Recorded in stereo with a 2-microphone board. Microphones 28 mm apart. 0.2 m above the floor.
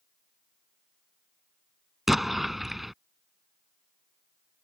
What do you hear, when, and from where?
2.1 s an explosion: 5° right (ahead or behind)